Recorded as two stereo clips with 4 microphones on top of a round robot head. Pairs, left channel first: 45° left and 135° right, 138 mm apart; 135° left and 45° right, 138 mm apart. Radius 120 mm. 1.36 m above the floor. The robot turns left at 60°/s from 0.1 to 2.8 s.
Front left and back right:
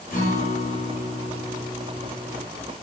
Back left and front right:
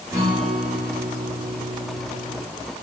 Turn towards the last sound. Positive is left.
turn(degrees=-140)